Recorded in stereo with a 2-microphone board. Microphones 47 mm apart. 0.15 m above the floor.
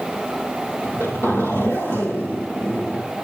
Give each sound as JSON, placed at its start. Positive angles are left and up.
{"t": 0.8, "sound": "a zipper", "side_deg": 60, "distance_m": 4.0}